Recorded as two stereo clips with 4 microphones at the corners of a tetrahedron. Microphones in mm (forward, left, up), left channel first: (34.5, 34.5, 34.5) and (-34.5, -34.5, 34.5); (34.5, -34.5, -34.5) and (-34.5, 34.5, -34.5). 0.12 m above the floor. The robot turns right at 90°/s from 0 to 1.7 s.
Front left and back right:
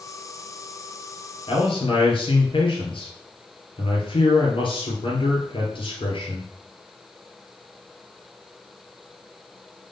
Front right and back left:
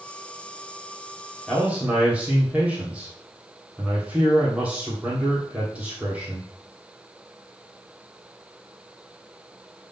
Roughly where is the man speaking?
Ahead left.